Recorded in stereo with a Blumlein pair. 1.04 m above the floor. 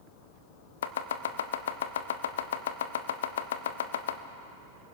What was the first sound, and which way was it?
Chopping, 60° left.